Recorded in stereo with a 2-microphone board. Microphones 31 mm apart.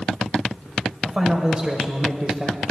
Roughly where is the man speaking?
Right.